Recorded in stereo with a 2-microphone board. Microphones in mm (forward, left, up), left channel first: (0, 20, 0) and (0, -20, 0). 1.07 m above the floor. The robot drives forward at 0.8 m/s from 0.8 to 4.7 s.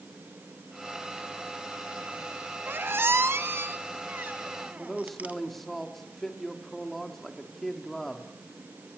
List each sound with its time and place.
2.7 s a squeak: 60° right (ahead or behind), 1.1 m; by 5.4 s 40° right (ahead or behind), 1.5 m
4.8 s a man speaking: 5° left (ahead or behind), 2.5 m